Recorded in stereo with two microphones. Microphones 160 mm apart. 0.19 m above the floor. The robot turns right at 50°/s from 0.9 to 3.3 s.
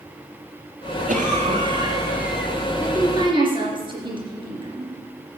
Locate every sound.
1.1 s a cough: 65° right, 2.5 m; by 2.5 s 5° left, 2.5 m
2.8 s a woman speaking: 10° right (ahead or behind), 3.5 m; by 4.9 s 30° right (ahead or behind), 3.5 m